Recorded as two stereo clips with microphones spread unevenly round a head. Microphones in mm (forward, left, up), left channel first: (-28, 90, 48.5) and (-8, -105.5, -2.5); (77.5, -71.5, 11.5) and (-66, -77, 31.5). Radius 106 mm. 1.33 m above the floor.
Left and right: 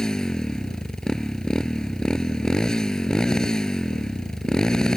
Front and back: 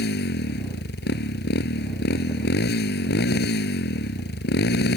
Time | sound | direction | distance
0.0 | a motorcycle | 10° left | ?